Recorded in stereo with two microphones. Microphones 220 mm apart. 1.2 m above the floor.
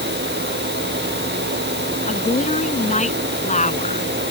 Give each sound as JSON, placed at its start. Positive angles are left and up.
{"t": 2.1, "sound": "a woman speaking", "side_deg": 30}